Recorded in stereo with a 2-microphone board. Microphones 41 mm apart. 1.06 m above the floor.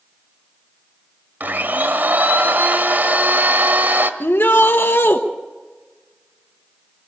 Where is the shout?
65° left (ahead or behind), 1.1 m.